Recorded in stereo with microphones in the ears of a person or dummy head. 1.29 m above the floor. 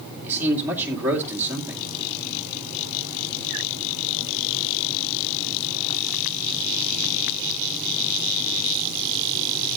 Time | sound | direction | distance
0.2 | a man speaking | 15° right (ahead or behind) | 2 m